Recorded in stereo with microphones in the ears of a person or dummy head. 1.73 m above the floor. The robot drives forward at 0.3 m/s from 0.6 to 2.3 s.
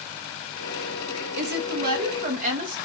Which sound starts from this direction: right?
A woman speaking, at 1.4 s.